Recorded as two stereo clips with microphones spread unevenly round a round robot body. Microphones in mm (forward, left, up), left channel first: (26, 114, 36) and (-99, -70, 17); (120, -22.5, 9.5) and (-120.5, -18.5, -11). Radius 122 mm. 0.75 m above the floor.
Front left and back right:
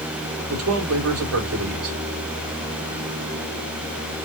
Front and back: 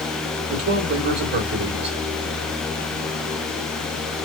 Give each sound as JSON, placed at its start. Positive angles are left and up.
{"t": 0.5, "sound": "a man speaking", "azimuth_deg": -135, "distance_m": 1.8}